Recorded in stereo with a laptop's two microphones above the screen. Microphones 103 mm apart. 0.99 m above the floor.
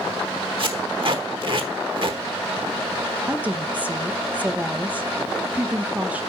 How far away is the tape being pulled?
About 1.1 m.